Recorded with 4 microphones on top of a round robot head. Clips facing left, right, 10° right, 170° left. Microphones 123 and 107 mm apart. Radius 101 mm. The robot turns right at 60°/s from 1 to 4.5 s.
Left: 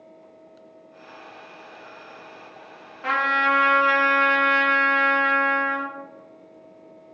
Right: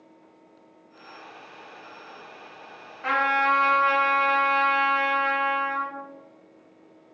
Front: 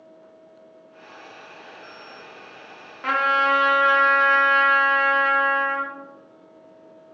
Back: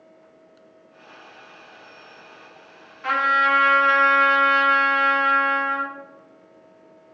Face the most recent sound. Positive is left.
turn(degrees=105)